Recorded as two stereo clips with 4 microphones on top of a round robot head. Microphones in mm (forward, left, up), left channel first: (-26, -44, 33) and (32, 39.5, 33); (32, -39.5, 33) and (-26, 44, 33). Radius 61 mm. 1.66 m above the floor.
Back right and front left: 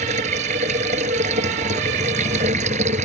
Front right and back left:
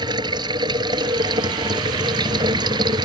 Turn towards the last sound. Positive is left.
turn(degrees=75)